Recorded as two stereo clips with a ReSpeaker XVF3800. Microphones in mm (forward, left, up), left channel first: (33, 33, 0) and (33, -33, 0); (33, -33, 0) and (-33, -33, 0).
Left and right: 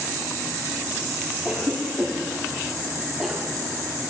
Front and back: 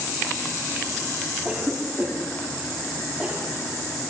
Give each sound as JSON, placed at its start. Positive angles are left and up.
{"t": 1.4, "sound": "a cough", "azimuth_deg": -165, "distance_m": 1.0}